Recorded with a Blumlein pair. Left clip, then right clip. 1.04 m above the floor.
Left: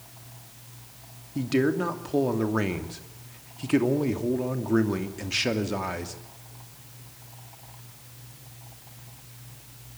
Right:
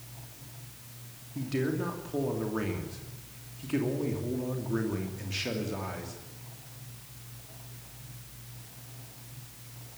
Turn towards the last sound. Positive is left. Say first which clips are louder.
# left 7 dB
turn(degrees=65)